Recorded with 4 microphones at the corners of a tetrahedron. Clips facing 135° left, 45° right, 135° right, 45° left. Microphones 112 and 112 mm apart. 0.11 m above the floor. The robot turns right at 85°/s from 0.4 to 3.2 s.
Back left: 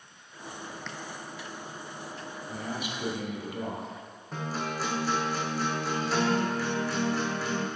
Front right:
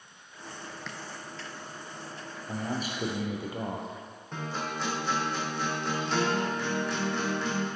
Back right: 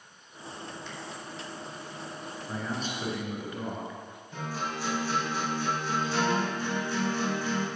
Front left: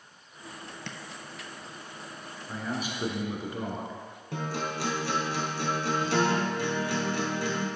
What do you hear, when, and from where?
0.9 s tapping: 45° left, 0.7 m; by 1.0 s 50° left, 0.7 m
2.5 s a man speaking: 60° right, 1.9 m; by 4.0 s straight ahead, 1.9 m
4.3 s a guitar: 45° left, 2 m